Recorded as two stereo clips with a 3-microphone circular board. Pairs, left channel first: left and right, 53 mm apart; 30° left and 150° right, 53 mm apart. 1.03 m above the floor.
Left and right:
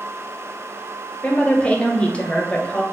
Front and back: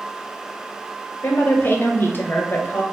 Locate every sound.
1.2 s a woman speaking: 35° left, 0.7 m